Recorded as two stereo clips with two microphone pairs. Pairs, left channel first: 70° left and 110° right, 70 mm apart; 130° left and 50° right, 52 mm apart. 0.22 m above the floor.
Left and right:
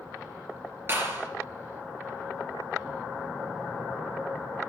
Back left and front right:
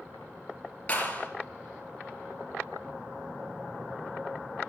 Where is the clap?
165° right, 3.5 m.